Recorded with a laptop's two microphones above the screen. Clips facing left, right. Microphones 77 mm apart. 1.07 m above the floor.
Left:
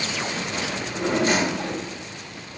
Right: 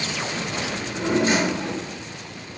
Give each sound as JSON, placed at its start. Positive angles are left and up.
{"t": 0.7, "sound": "a drawer", "side_deg": 60, "distance_m": 1.4}